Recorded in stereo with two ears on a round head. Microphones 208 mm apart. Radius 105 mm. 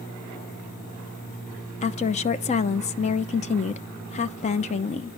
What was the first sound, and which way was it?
A woman speaking, 30° left (ahead or behind).